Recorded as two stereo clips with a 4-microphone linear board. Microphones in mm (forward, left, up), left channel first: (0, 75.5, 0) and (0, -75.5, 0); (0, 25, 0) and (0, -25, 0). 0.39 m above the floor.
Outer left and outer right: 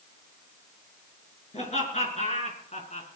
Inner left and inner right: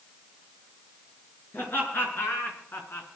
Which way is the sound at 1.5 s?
50° left (ahead or behind).